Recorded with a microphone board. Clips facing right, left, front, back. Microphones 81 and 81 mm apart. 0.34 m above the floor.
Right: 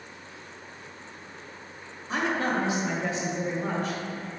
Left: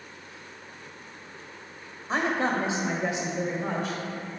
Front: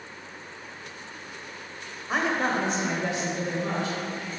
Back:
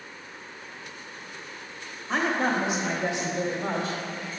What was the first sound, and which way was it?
A woman speaking, 70° left.